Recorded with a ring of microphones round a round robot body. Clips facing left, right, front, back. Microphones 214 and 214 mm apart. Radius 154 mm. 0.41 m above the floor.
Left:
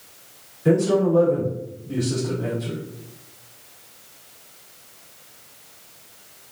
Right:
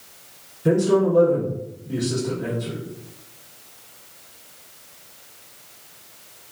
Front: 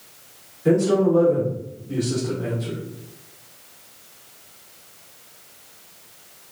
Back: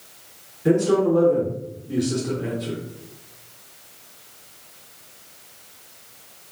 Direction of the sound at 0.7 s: 135° right.